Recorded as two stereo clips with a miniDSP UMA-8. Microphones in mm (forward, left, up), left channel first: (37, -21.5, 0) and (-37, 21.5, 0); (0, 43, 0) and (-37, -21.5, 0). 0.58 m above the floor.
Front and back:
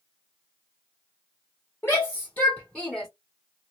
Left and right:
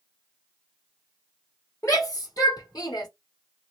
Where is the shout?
30° left, 1.5 m; by 3.1 s 55° left, 1.7 m.